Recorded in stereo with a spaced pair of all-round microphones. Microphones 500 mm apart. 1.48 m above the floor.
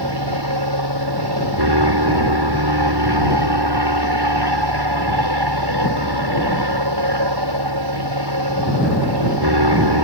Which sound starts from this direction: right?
An aircraft, at 0.0 s.